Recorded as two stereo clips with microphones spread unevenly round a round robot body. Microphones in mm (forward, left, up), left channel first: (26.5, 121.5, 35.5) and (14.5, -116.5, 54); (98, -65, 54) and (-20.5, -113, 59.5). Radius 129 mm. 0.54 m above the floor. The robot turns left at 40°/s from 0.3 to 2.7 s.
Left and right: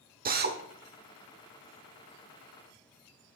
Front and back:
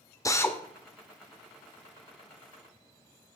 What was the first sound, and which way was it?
A drill, 40° right.